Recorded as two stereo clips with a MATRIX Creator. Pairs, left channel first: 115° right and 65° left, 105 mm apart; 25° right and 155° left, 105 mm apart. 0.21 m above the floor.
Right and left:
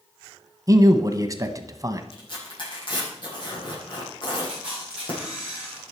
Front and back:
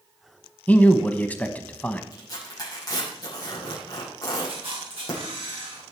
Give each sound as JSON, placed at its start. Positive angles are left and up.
{"t": 0.7, "sound": "a man speaking", "azimuth_deg": 45, "distance_m": 1.2}
{"t": 2.1, "sound": "tearing paper", "azimuth_deg": -75, "distance_m": 7.5}
{"t": 4.5, "sound": "a camera shutter", "azimuth_deg": 145, "distance_m": 9.0}